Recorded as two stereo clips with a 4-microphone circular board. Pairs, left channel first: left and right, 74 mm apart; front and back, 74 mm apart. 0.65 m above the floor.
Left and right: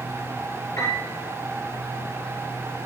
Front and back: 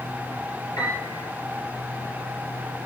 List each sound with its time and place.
0.8 s a piano: 40° left, 6 m